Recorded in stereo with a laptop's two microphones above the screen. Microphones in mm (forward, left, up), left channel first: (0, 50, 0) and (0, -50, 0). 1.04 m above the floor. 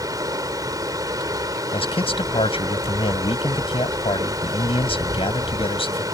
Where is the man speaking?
65° left (ahead or behind).